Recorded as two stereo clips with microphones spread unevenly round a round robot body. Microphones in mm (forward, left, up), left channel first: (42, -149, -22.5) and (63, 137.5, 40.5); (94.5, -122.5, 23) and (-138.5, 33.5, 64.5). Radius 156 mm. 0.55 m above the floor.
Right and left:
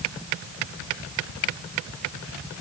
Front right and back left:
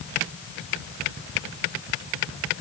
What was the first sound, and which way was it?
Only background noise.